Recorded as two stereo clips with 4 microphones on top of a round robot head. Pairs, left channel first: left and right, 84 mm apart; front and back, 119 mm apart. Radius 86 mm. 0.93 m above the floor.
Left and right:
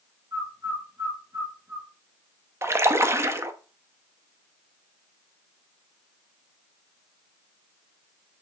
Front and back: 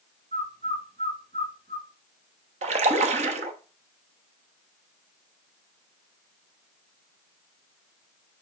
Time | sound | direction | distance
0.3 | a bird | 135° right | 1.9 m
2.6 | a splash | 150° right | 0.7 m